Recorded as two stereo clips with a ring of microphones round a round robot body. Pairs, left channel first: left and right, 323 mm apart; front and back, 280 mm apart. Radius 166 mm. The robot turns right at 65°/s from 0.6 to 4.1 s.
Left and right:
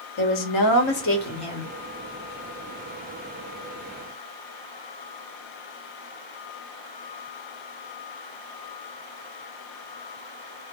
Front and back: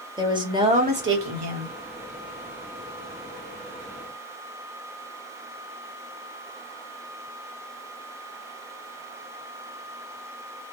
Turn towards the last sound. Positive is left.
turn(degrees=-25)